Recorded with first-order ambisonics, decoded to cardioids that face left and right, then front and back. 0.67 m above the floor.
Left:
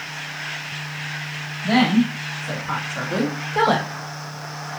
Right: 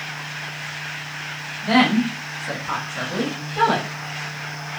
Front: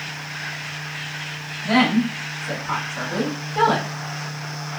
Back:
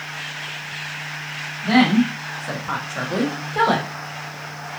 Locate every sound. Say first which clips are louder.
1.6 s a woman speaking: right 1 dB, back 1 dB; 115° right, 1.2 m; by 3.9 s 110° left, 1.1 m